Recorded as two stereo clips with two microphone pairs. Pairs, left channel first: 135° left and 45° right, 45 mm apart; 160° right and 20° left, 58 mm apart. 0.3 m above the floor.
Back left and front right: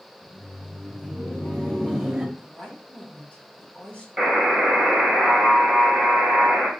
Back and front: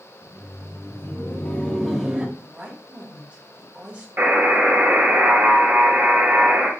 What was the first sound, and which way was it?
Laughter, 175° left.